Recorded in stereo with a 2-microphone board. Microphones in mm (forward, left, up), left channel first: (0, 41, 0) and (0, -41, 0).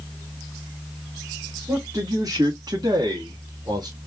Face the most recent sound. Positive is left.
turn(degrees=-55)  # may be behind; listen again after turning